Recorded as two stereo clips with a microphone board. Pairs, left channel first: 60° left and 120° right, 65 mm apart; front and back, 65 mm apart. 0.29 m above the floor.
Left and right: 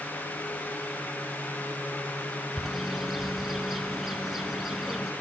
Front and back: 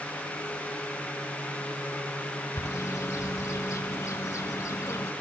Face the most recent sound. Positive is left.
turn(degrees=-35)